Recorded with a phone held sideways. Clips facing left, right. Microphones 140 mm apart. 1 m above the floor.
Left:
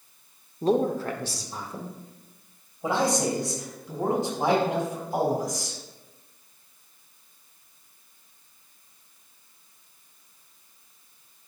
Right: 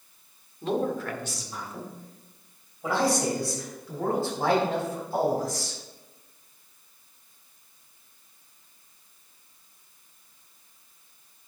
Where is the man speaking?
40° left (ahead or behind), 1.2 m; by 5.8 s 20° left (ahead or behind), 4 m.